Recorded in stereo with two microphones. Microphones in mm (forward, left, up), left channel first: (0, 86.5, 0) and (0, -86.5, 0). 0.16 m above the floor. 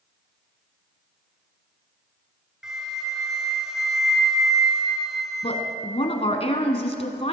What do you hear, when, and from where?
2.6 s a flute: 5° right (ahead or behind), 1.8 m
5.4 s a woman speaking: 35° left (ahead or behind), 1.4 m